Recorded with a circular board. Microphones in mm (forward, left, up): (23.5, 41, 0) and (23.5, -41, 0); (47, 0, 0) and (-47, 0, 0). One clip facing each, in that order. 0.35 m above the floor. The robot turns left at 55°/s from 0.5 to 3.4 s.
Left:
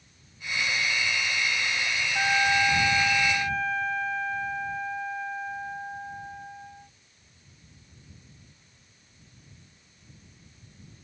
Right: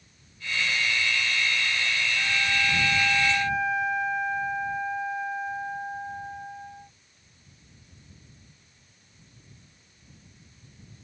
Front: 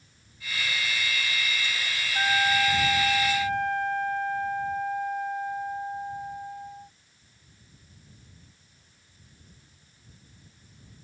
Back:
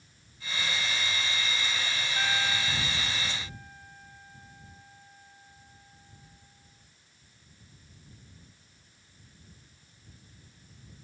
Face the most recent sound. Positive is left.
turn(degrees=-10)